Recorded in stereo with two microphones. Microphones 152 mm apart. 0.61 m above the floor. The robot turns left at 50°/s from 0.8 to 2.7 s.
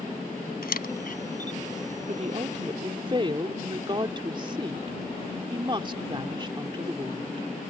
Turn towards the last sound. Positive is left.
turn(degrees=-140)